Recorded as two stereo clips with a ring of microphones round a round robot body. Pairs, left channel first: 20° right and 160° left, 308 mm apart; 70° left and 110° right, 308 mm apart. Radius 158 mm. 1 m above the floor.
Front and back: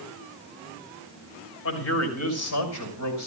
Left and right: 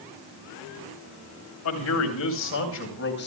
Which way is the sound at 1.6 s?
25° left.